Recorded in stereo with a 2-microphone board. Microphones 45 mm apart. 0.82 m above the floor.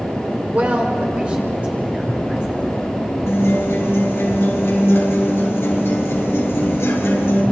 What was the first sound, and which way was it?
A woman speaking, 35° right (ahead or behind).